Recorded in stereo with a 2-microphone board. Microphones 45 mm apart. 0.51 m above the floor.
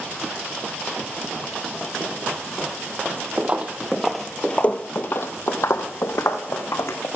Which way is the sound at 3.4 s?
30° right (ahead or behind).